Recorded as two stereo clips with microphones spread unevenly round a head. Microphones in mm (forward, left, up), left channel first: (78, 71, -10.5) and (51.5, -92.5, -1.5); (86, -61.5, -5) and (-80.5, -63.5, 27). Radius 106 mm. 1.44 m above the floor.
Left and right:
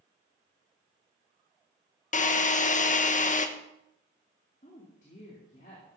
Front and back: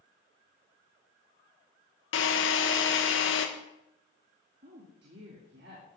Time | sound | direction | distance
2.1 | a drill | 35° left | 1.2 m
4.6 | a woman speaking | 140° left | 2.5 m